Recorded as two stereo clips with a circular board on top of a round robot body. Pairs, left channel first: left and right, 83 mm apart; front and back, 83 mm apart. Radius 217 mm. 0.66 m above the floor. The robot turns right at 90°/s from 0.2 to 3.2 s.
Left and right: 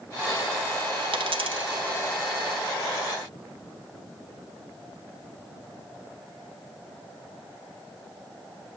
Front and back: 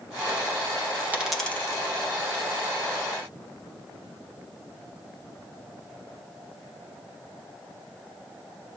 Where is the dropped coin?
110° right, 1.6 m; by 1.8 s 45° right, 1.6 m.